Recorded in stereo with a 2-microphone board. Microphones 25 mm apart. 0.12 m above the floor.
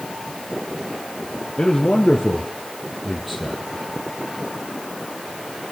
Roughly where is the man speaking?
Left.